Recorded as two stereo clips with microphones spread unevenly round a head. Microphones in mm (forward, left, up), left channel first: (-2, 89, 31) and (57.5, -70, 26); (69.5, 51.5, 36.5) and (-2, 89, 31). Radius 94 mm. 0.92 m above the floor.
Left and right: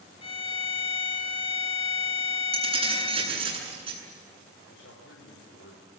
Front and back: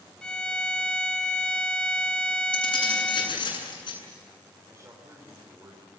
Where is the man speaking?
100° left, 4 m.